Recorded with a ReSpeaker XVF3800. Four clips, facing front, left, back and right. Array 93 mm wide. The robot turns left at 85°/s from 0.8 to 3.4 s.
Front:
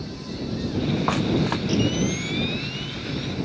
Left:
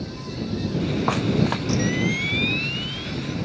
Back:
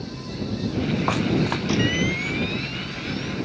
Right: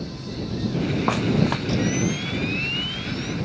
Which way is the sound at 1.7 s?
170° left.